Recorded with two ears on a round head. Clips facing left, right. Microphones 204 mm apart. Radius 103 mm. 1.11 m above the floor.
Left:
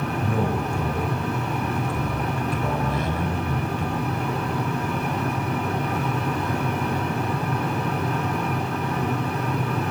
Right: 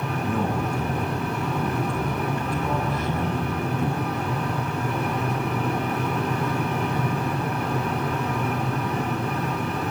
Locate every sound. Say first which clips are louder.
0.2 s a man speaking: right 1 dB; 60° left (ahead or behind), 5 m